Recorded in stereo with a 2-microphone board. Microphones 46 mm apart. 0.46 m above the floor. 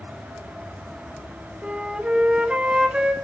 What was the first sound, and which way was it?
A flute, 20° right (ahead or behind).